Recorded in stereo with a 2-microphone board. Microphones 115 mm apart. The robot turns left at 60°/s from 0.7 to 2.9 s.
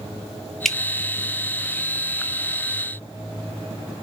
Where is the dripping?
5° left (ahead or behind), 0.6 m; by 0.8 s centre (ahead or behind), 0.6 m.